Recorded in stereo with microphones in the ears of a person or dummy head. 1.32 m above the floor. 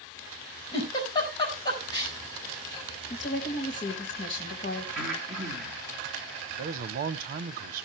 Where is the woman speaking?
35° left (ahead or behind), 2.0 m.